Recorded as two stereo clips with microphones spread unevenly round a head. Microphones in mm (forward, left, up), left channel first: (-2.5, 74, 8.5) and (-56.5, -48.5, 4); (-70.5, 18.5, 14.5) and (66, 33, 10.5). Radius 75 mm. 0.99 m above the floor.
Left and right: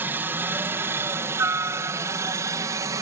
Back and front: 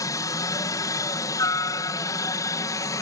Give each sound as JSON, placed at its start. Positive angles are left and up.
{"t": 0.0, "sound": "a helicopter", "azimuth_deg": -165}